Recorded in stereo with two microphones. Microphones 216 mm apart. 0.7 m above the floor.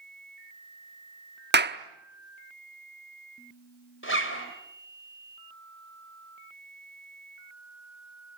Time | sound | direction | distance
1.5 | a clap | 55° right (ahead or behind) | 1.0 m
4.0 | a zipper | 70° left (ahead or behind) | 3.5 m